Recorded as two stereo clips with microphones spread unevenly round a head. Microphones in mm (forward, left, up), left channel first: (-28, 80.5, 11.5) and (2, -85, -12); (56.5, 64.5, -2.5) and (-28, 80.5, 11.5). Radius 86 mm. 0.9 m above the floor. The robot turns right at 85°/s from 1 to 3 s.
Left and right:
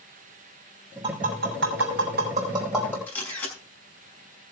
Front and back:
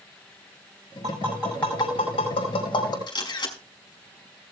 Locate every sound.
1.0 s tapping: 140° right, 6 m; by 3.0 s 25° left, 6 m
3.1 s a camera shutter: 20° left, 5.5 m